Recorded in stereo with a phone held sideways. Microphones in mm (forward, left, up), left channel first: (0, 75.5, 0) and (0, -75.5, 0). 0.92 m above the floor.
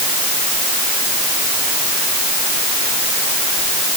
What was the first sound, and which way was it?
Only background noise.